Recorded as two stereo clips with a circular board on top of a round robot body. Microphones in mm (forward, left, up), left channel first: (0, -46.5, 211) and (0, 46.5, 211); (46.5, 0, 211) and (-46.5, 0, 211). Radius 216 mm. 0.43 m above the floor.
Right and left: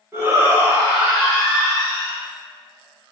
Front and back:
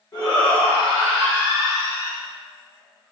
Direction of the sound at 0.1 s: 35° left.